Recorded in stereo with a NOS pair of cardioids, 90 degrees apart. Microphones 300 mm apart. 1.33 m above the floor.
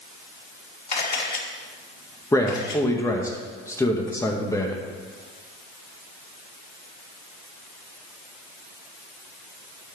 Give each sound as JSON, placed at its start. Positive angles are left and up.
{"t": 0.9, "sound": "a camera shutter", "azimuth_deg": 25, "distance_m": 4.5}
{"t": 2.3, "sound": "a man speaking", "azimuth_deg": 10, "distance_m": 1.8}